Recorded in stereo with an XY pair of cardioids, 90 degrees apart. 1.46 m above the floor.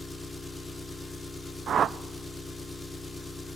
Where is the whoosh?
60° right, 0.6 m.